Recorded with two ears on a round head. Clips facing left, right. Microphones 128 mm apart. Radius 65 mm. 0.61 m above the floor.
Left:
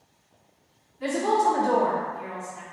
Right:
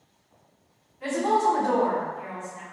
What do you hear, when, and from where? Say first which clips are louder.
1.0 s a woman speaking: even; 40° left (ahead or behind), 1.4 m